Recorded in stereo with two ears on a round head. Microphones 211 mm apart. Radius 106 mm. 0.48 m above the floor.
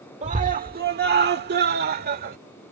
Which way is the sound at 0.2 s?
30° right (ahead or behind).